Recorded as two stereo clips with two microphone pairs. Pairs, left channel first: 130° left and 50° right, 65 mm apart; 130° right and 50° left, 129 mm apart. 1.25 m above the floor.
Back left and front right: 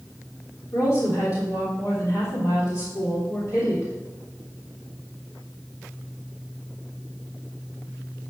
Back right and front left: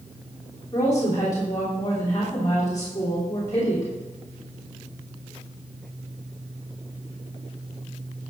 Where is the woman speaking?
165° left, 3 m.